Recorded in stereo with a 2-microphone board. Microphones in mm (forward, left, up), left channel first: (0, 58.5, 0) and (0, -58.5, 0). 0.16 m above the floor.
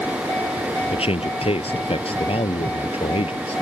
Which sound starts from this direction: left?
A man speaking, at 0.9 s.